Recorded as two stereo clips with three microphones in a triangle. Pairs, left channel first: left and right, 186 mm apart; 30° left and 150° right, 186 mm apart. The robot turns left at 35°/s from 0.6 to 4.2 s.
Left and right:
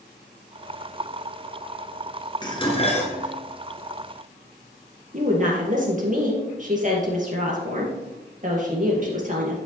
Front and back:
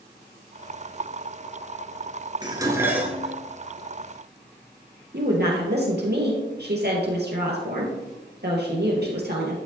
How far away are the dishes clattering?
About 1.3 m.